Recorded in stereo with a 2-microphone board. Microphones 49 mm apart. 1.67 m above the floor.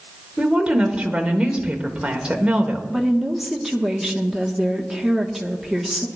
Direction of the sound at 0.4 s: 20° right (ahead or behind).